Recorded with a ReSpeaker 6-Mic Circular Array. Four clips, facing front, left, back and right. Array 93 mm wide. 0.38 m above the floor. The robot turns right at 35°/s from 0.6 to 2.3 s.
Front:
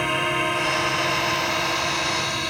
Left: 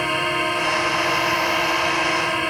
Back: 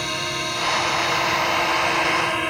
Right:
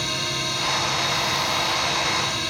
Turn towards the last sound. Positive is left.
turn(degrees=120)